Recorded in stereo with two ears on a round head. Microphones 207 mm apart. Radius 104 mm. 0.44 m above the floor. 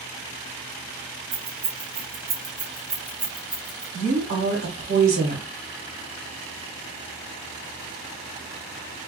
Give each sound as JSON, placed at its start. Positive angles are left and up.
{"t": 1.3, "sound": "keys jangling", "side_deg": -65, "distance_m": 1.2}
{"t": 3.9, "sound": "a woman speaking", "side_deg": -45, "distance_m": 1.3}